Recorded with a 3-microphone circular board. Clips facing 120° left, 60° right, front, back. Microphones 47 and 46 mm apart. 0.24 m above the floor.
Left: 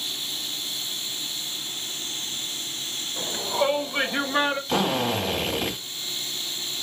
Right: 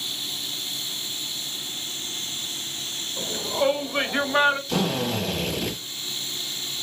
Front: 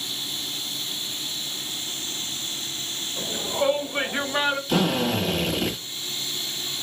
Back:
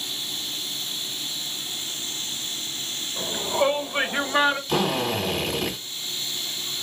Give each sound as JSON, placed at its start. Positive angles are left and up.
{"t": 3.2, "sound": "a shout", "azimuth_deg": 140, "distance_m": 1.0}
{"t": 4.7, "sound": "a drill", "azimuth_deg": 90, "distance_m": 1.5}